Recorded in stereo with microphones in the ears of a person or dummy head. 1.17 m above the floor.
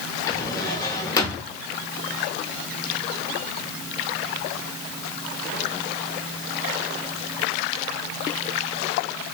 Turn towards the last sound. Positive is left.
turn(degrees=20)  # may be behind; listen again after turning